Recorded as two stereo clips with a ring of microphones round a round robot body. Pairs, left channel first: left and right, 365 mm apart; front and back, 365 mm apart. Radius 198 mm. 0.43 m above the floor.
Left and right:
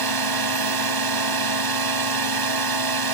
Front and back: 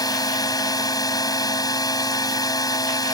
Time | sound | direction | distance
0.0 | a drone | 80° right | ?